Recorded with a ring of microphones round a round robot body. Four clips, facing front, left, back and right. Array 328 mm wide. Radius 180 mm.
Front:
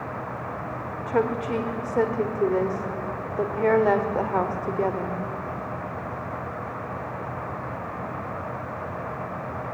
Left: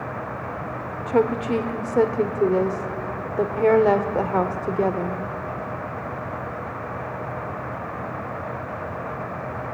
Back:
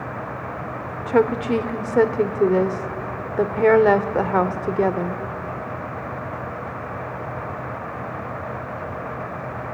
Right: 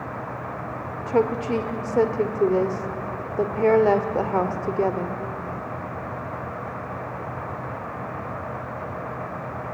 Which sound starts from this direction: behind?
A woman speaking, at 1.1 s.